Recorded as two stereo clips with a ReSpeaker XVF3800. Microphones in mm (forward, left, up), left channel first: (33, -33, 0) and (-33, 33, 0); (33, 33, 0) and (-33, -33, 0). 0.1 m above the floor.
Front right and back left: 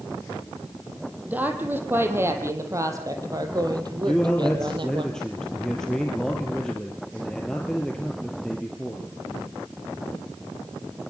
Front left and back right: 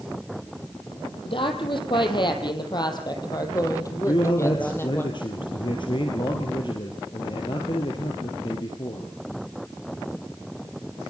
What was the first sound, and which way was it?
A woman speaking, 65° left.